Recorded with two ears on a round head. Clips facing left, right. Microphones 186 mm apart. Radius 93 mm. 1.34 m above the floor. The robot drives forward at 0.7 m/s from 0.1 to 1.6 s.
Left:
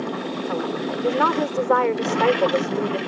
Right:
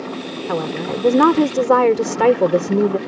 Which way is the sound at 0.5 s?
65° right (ahead or behind).